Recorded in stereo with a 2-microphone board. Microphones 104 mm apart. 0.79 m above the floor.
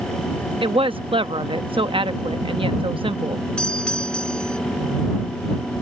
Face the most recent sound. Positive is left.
turn(degrees=10)  # may be behind; listen again after turning